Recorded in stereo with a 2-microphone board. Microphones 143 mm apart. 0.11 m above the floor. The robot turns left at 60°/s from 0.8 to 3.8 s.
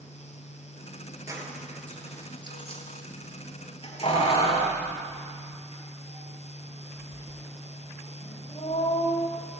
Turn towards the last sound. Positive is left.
turn(degrees=40)  # may be behind; listen again after turning